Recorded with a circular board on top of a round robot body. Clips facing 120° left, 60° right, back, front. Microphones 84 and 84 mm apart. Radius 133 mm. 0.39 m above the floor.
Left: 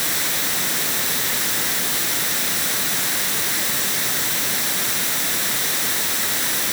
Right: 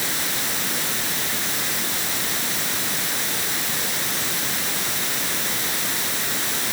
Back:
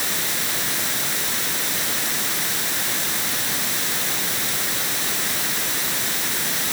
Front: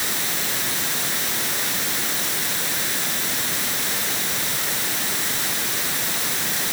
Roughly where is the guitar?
I don't hear a guitar.